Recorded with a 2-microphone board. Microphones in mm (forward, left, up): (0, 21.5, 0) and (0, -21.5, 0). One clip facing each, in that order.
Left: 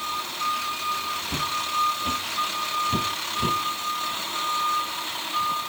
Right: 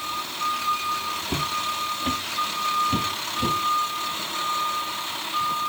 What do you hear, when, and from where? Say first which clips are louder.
1.3 s footsteps: right 1 dB; 30° right (ahead or behind), 1.4 m; by 3.6 s centre (ahead or behind), 2.5 m